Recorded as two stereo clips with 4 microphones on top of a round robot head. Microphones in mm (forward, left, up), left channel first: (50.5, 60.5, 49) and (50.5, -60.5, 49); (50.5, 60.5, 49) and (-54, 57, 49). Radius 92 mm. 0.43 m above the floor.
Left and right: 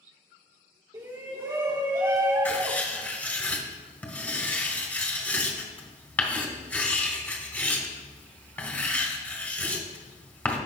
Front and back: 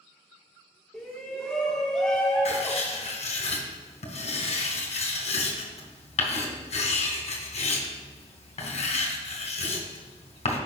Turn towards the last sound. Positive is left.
turn(degrees=15)